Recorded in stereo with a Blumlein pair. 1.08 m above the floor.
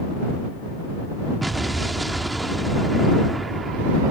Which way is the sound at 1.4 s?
5° right.